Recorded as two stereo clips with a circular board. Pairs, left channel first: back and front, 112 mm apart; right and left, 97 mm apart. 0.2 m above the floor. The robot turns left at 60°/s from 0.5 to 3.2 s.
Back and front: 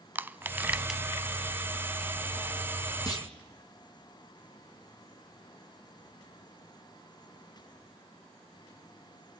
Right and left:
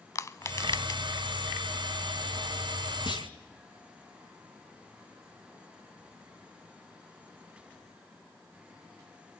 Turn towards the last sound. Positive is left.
turn(degrees=-130)